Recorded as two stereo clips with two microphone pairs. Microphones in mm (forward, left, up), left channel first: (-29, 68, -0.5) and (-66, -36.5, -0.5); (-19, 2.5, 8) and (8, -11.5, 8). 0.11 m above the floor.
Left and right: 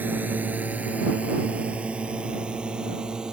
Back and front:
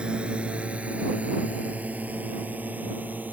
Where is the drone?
45° right; by 3.3 s 25° right.